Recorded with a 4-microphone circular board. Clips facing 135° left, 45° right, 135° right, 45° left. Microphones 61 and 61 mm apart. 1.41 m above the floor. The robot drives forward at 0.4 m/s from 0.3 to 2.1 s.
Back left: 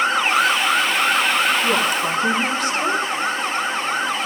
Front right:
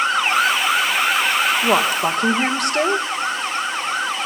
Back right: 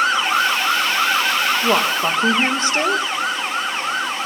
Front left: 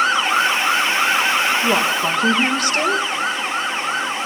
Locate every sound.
1.6 s a woman speaking: 65° right, 2.0 m; by 3.1 s 70° right, 1.9 m